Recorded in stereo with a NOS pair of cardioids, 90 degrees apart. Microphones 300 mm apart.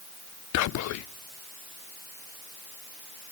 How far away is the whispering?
About 0.6 m.